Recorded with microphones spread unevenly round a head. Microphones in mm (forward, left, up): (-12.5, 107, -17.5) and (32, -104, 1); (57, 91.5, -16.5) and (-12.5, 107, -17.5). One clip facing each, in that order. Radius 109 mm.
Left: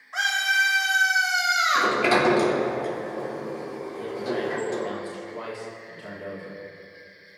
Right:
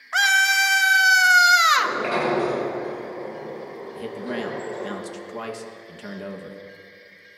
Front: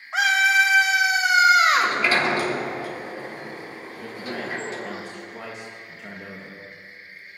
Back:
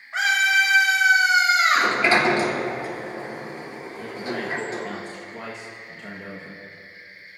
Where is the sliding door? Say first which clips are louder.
Left 5 dB, back 2 dB; 105° left, 3.5 m.